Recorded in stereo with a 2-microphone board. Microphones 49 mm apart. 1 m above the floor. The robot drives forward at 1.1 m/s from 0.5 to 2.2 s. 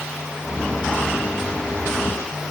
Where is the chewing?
No chewing in this recording.